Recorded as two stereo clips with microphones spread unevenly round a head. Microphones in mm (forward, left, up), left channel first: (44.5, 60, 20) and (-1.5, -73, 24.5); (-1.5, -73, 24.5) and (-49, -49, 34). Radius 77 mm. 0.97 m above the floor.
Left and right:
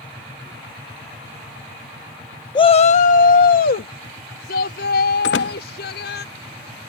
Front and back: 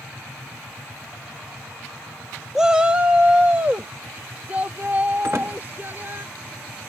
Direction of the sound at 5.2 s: 80° left.